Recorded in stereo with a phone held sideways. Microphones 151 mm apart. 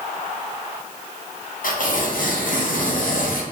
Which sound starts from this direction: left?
Tearing paper, at 1.6 s.